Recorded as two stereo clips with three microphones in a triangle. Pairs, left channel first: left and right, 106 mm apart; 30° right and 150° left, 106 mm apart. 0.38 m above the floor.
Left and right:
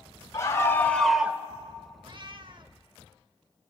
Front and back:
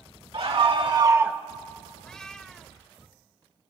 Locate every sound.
0.3 s a scream: 145° left, 1.6 m; by 1.4 s 130° right, 0.8 m
2.0 s a cat meowing: 115° right, 0.6 m